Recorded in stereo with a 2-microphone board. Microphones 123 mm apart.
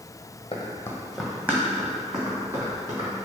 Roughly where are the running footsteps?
Left.